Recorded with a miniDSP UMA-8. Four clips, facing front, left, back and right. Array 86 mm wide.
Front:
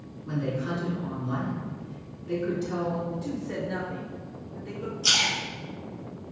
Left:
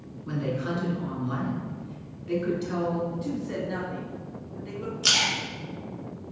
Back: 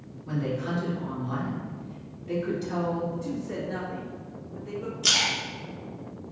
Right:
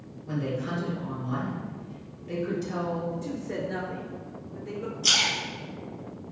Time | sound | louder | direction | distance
0.2 | a woman speaking | left 1 dB, even | 85° left | 2.0 m
3.1 | a woman speaking | left 2 dB, even | 70° left | 1.4 m
5.0 | a splash | left 2 dB, front 1 dB | 115° left | 1.6 m